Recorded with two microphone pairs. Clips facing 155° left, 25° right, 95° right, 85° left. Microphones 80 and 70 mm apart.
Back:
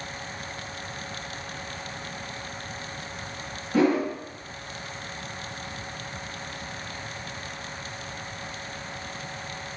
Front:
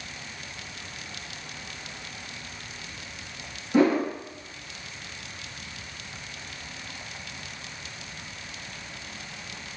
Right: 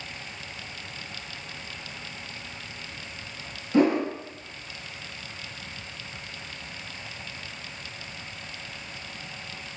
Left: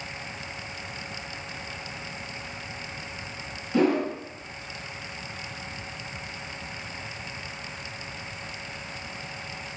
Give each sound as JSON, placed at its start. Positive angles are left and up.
{"t": 3.7, "sound": "a whoosh", "azimuth_deg": -70, "distance_m": 1.2}